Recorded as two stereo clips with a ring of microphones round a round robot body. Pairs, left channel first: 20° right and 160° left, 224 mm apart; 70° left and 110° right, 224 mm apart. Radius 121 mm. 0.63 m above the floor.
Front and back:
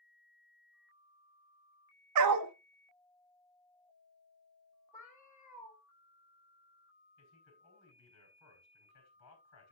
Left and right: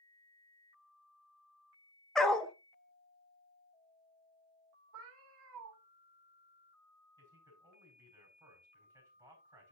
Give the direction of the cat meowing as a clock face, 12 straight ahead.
3 o'clock.